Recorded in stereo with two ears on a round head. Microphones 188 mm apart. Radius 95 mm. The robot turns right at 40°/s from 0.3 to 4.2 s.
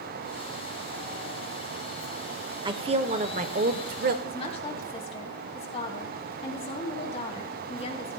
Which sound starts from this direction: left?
A woman speaking, at 4.2 s.